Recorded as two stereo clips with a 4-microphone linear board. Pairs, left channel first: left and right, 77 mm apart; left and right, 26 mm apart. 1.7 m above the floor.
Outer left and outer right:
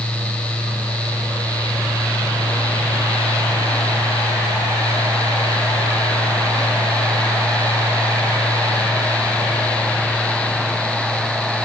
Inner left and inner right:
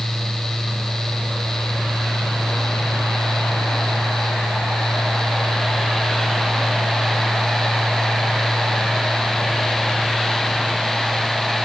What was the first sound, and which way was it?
Only background noise.